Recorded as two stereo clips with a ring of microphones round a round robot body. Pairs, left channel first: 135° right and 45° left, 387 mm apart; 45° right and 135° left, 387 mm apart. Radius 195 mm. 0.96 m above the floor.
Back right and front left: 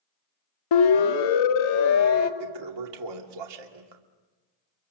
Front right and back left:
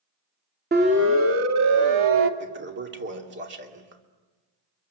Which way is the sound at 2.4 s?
70° left.